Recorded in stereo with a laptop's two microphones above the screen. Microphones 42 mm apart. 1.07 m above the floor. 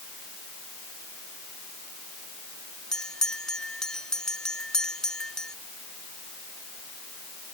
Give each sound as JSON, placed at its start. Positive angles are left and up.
{"t": 2.9, "sound": "a bell", "side_deg": 15}